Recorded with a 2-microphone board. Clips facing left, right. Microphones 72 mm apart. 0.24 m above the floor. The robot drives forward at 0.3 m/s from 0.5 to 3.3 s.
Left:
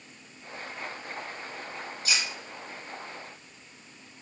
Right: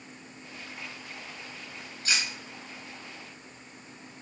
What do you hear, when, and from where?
2.0 s cutlery clinking: 35° right (ahead or behind), 1.2 m